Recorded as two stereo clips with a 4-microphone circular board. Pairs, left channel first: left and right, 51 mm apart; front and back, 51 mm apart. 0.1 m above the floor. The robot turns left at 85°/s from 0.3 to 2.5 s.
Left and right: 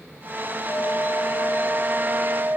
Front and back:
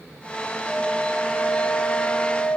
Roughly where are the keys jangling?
I don't hear keys jangling.